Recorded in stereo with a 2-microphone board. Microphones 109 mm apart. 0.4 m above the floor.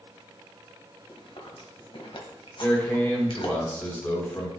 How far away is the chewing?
About 1.5 m.